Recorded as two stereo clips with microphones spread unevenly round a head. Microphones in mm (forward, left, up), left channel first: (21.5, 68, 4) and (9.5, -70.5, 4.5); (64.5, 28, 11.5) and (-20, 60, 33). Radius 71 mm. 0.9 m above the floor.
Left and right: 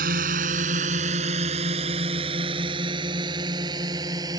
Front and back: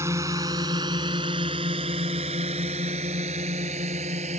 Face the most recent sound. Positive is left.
turn(degrees=-160)